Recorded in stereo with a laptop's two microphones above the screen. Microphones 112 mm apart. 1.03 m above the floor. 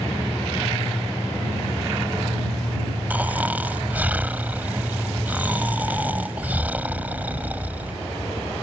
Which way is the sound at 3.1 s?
15° right (ahead or behind).